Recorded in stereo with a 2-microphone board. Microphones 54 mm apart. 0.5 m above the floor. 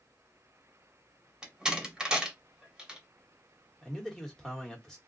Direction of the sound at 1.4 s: 15° right (ahead or behind).